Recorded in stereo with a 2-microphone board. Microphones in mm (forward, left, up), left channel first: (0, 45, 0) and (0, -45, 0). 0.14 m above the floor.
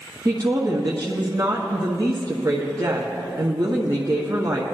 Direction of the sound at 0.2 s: 40° right (ahead or behind).